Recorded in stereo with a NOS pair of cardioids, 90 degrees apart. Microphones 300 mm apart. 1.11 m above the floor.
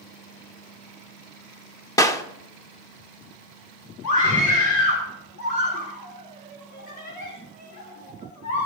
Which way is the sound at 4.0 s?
70° left.